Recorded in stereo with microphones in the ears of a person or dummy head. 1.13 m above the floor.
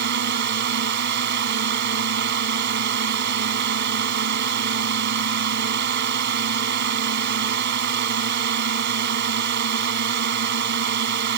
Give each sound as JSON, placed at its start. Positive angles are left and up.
{"t": 0.0, "sound": "a drone", "side_deg": -55}